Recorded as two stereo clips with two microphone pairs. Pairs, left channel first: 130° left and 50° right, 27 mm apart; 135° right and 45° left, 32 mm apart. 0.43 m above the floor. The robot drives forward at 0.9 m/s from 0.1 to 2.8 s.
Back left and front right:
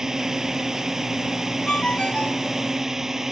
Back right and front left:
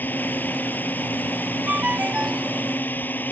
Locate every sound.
0.0 s a drone: 120° right
1.7 s a ringtone: 85° left; by 2.5 s 100° left